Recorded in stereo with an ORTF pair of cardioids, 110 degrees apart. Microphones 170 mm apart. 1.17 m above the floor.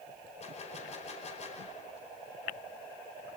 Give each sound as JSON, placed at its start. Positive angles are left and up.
{"t": 0.4, "sound": "a gunshot", "azimuth_deg": 40, "distance_m": 5.0}